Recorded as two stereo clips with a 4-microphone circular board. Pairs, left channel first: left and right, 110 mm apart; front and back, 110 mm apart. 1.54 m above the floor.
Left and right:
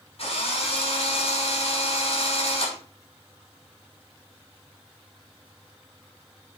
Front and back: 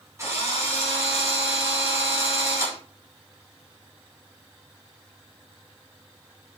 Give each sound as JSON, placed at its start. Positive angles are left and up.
{"t": 0.2, "sound": "a drill", "azimuth_deg": 115, "distance_m": 5.5}